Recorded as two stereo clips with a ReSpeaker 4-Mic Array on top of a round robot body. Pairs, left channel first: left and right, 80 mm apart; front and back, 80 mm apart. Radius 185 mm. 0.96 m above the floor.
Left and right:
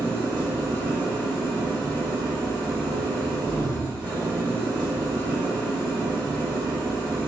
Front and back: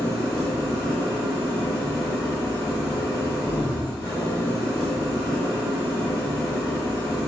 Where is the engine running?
45° right, 1.7 m.